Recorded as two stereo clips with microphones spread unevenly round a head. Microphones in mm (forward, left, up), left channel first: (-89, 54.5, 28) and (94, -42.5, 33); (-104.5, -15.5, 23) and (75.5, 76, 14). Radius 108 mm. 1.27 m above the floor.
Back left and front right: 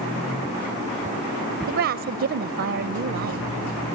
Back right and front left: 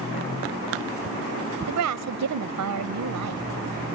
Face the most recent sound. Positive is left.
turn(degrees=5)